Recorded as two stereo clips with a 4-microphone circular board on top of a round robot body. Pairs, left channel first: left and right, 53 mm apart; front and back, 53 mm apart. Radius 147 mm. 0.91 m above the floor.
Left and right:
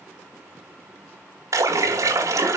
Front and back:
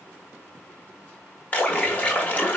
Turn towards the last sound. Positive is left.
turn(degrees=-70)